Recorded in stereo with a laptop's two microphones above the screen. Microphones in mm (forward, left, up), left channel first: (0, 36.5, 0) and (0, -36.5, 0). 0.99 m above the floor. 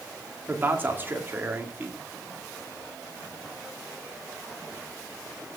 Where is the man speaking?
25° right (ahead or behind), 2.0 m.